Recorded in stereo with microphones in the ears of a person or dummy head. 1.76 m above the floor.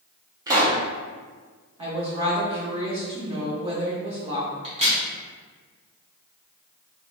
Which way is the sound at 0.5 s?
20° right (ahead or behind).